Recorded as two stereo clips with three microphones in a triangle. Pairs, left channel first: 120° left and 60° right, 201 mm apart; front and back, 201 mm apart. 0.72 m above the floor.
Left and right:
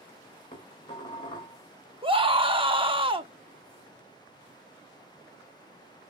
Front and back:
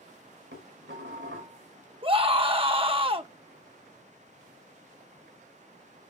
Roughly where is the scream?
Behind right.